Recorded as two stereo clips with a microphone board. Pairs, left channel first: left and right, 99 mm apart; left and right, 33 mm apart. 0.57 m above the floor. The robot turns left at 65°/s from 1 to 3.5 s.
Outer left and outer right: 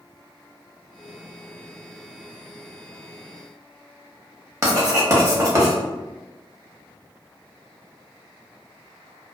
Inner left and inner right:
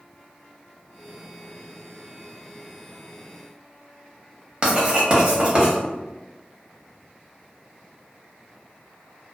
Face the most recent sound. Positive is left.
turn(degrees=-30)  # may be behind; listen again after turning